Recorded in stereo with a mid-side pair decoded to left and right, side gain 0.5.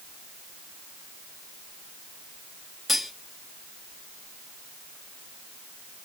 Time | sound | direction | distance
2.9 | cutlery clinking | 15° left | 1.5 m